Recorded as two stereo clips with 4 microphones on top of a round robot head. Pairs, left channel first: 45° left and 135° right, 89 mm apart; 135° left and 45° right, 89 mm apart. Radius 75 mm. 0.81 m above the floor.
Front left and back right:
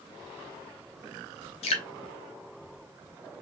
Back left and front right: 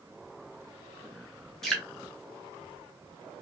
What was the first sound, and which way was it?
Dripping, 50° left.